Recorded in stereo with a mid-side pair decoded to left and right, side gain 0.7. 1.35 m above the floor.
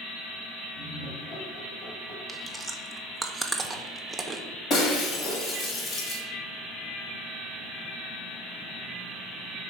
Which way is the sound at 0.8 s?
35° left.